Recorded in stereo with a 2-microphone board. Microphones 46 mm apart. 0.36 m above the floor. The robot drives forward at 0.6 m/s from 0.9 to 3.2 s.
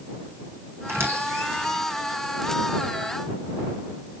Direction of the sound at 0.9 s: 70° right (ahead or behind).